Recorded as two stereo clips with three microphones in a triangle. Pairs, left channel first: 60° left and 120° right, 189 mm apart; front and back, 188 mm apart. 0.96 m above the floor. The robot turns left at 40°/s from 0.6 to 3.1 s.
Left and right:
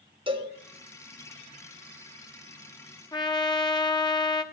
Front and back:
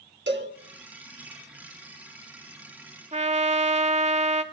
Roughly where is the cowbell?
Behind.